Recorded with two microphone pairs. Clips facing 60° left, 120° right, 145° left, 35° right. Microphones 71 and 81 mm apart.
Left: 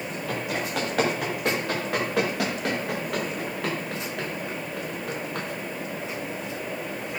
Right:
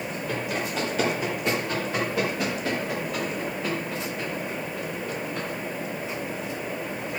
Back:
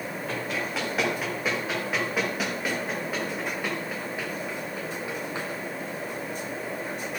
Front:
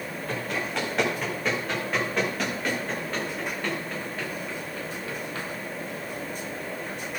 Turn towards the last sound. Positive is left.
turn(degrees=75)